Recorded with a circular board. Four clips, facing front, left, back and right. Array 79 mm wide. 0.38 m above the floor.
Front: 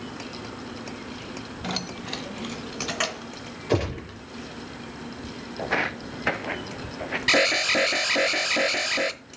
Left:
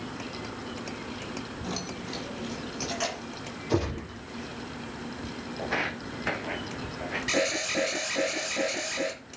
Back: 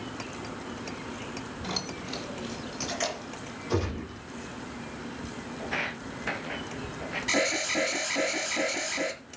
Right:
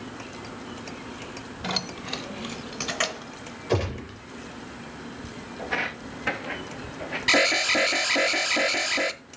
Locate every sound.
1.6 s keys jangling: 55° right, 1.1 m; by 3.3 s 35° right, 3 m
3.7 s a gunshot: 25° right, 5 m
5.6 s footsteps: 5° left, 1.1 m; by 7.2 s 10° right, 2 m
7.3 s an alarm: 35° right, 0.9 m